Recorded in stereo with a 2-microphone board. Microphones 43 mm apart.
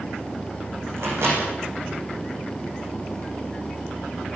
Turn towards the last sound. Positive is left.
turn(degrees=-70)  # may be behind; listen again after turning